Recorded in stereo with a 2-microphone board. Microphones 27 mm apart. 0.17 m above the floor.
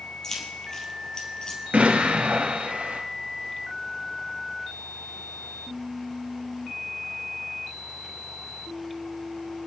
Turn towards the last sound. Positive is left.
turn(degrees=-60)  # may be behind; listen again after turning